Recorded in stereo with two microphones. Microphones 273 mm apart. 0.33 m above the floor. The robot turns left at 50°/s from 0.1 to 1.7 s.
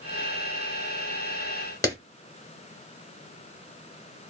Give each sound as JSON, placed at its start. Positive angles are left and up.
{"t": 1.8, "sound": "a clap", "side_deg": 15, "distance_m": 1.3}